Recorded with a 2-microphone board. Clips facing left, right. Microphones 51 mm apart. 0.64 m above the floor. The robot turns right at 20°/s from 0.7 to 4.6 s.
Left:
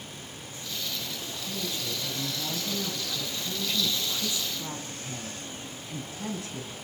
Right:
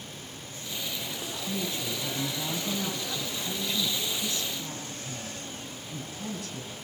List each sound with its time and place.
1.5 s a woman speaking: 40° right, 5 m; by 6.7 s 25° left, 5 m